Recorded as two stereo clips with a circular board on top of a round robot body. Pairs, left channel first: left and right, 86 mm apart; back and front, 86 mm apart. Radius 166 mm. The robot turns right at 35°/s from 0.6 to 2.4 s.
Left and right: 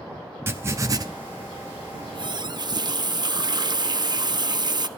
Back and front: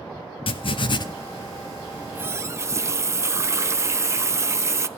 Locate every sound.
0.5 s writing: 155° right, 0.6 m; by 1.0 s 140° right, 0.6 m
1.9 s a running tap: 70° right, 1.0 m; by 4.9 s 55° right, 1.0 m